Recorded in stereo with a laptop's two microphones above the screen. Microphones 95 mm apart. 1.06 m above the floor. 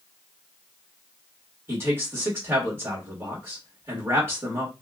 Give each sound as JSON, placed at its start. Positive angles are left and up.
{"t": 1.7, "sound": "a man speaking", "side_deg": -25, "distance_m": 1.7}